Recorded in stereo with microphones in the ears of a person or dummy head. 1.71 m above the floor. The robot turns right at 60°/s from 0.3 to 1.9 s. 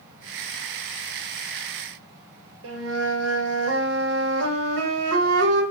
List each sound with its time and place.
2.6 s a flute: 75° right (ahead or behind), 1.0 m